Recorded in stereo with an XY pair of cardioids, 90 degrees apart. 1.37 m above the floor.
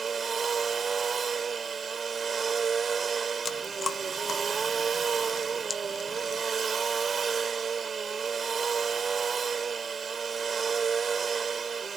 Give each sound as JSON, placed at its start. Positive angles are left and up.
{"t": 0.0, "sound": "a machine running", "azimuth_deg": -45}
{"t": 3.5, "sound": "chewing", "azimuth_deg": 45}